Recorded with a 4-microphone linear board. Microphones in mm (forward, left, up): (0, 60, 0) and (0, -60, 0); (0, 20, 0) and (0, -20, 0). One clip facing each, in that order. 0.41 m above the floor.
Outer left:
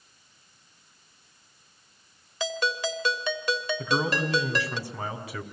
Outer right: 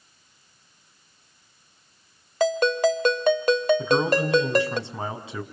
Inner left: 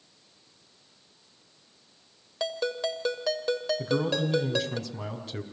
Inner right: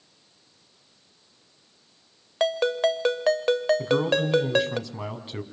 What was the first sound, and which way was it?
A ringtone, 55° right (ahead or behind).